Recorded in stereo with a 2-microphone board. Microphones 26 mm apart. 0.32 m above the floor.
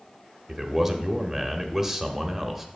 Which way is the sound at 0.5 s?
10° right (ahead or behind).